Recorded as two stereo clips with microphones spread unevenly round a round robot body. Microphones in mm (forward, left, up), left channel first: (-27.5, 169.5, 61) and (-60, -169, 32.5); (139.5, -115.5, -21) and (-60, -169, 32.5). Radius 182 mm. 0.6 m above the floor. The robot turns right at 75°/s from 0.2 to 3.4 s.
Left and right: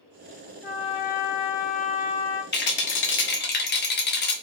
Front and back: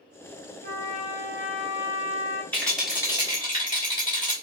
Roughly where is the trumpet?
Ahead.